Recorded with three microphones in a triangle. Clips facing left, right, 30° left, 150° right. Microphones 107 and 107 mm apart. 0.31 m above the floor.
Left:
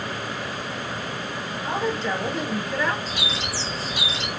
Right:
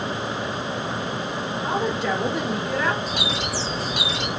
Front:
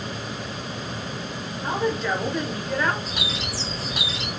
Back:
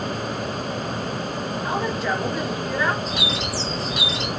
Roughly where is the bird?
Ahead right.